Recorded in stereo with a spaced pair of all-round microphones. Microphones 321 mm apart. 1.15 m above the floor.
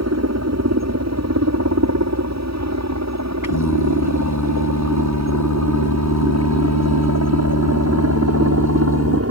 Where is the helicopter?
55° right (ahead or behind); by 9.3 s 50° right (ahead or behind).